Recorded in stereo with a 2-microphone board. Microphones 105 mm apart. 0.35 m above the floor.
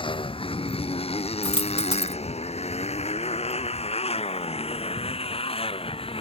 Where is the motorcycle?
55° left (ahead or behind); by 6.2 s 60° left (ahead or behind).